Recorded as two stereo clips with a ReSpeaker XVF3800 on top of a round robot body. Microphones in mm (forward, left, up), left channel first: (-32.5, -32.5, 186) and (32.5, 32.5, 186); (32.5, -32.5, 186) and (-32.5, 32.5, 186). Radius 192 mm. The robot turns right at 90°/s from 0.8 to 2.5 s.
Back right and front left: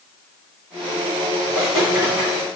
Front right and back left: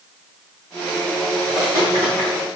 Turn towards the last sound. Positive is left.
turn(degrees=150)